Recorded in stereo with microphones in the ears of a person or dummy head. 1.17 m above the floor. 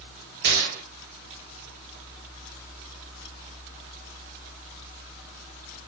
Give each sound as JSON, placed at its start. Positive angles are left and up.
{"t": 0.4, "sound": "a gunshot", "side_deg": -50, "distance_m": 1.5}